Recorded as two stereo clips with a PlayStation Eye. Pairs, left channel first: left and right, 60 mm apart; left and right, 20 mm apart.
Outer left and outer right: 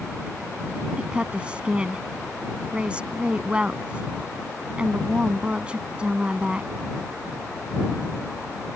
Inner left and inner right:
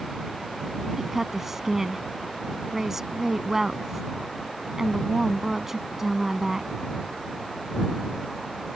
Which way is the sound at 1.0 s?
20° right (ahead or behind).